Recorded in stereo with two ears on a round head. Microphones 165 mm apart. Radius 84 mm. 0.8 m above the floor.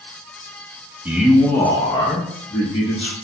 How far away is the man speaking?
About 0.6 m.